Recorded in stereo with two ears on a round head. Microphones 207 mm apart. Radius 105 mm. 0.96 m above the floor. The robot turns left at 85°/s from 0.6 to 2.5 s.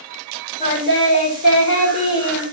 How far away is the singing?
About 3 m.